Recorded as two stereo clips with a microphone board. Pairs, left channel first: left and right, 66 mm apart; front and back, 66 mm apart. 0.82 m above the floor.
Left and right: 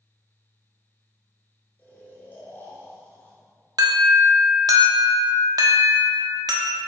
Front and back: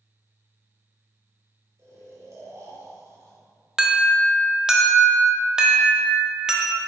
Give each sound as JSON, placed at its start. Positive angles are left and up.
{"t": 1.8, "sound": "snoring", "azimuth_deg": 145, "distance_m": 2.5}
{"t": 3.8, "sound": "an alarm", "azimuth_deg": -100, "distance_m": 1.2}